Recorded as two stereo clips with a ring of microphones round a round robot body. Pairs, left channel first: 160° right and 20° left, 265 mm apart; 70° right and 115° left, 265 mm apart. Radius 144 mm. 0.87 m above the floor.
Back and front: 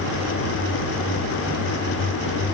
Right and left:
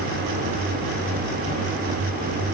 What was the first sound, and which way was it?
Only background noise.